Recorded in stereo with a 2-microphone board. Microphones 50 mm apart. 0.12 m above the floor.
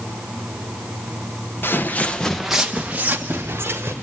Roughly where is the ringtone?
No ringtone in this recording.